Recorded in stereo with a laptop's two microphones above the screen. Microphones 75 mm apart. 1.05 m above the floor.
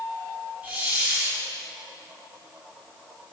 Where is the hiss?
25° right (ahead or behind), 2.5 m.